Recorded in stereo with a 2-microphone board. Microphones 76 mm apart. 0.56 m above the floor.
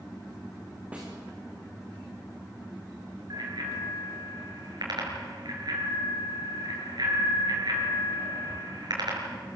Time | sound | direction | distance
0.9 | a snare drum | 15° right (ahead or behind) | 7 m
3.3 | a bicycle bell | 65° right (ahead or behind) | 6.5 m